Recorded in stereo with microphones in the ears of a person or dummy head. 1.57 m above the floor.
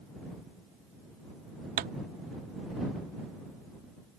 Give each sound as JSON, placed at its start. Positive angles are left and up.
{"t": 1.8, "sound": "a pop", "side_deg": -35}